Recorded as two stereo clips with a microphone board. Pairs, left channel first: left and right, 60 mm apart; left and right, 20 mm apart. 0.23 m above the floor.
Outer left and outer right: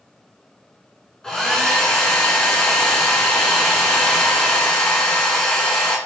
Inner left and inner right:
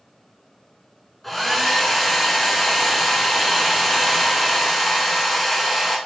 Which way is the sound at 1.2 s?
10° left (ahead or behind).